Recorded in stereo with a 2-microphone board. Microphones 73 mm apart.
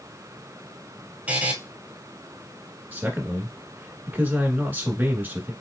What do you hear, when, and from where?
1.3 s a buzzer: 20° right (ahead or behind), 0.9 m
2.9 s a man speaking: 25° right (ahead or behind), 1.3 m